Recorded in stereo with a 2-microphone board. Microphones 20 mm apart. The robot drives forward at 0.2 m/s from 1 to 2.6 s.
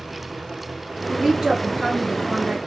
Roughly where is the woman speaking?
Right.